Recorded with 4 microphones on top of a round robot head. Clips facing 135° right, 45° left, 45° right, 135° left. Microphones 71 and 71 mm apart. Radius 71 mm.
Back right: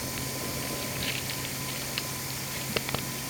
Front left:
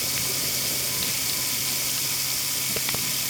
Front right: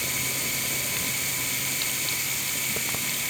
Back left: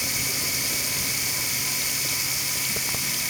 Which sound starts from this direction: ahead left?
Running water, at 0.0 s.